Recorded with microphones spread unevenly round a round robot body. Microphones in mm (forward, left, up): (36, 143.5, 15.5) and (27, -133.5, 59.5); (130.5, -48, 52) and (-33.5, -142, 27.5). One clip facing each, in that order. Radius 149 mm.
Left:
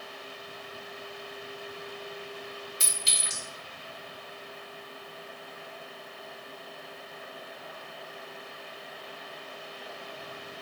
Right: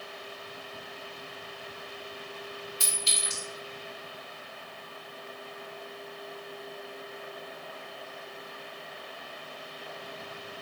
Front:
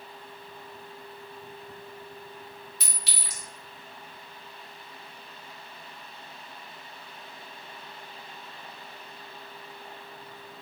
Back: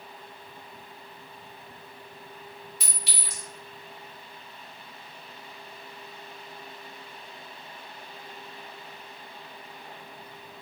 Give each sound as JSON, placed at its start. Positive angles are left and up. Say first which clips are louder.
{"t": 2.8, "sound": "a clink", "louder": "right 3 dB, back 2 dB", "azimuth_deg": 20, "distance_m": 1.7}